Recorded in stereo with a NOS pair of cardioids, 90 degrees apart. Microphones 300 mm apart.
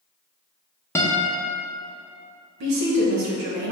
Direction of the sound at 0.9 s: 10° left.